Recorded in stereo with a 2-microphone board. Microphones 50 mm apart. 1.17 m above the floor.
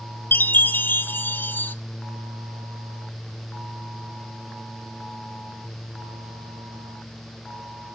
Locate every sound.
0.3 s a chime: 40° left (ahead or behind), 0.7 m